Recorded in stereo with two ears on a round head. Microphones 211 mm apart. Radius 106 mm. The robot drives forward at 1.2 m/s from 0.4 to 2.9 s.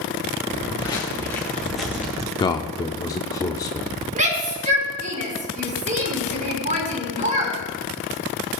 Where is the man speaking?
20° left (ahead or behind), 0.8 m; by 4.0 s 15° left (ahead or behind), 1.0 m.